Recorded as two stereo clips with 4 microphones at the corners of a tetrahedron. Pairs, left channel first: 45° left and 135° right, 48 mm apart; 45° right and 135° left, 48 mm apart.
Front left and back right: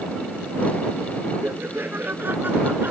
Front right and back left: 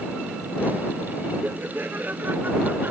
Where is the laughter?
175° right; by 2.9 s straight behind.